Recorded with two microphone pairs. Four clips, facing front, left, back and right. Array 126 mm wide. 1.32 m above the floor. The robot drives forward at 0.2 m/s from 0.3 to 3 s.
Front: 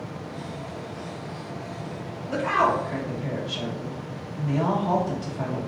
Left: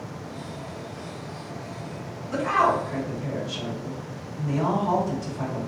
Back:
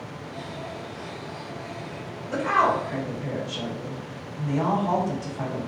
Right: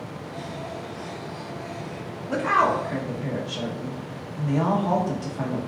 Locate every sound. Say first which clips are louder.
2.3 s a woman speaking: even, even; 95° right, 0.9 m; by 5.6 s 100° right, 1.0 m